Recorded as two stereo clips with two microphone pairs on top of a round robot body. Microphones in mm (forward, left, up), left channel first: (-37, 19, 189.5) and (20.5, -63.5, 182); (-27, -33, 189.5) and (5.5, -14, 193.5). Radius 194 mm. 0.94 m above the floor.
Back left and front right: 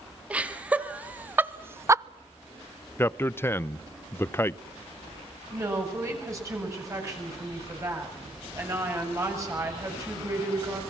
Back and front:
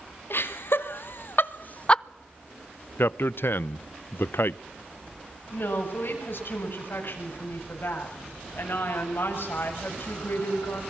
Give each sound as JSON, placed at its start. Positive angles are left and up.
{"t": 0.3, "sound": "laughter", "azimuth_deg": -130, "distance_m": 2.5}
{"t": 3.0, "sound": "a man speaking", "azimuth_deg": -165, "distance_m": 0.6}
{"t": 5.5, "sound": "a woman speaking", "azimuth_deg": -115, "distance_m": 7.0}